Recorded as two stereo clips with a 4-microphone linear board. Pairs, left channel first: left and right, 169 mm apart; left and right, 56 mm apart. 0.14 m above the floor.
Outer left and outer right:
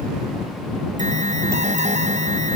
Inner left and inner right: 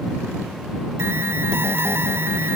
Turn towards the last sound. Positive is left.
turn(degrees=-45)  # may be behind; listen again after turning